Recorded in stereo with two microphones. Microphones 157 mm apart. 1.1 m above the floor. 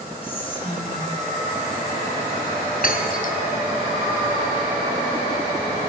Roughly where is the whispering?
Left.